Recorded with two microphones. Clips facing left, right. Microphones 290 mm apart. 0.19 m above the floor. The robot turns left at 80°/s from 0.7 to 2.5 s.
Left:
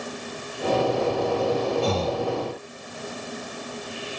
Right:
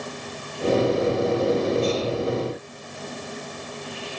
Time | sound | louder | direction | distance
1.8 | breathing | right 1 dB | 75° left | ?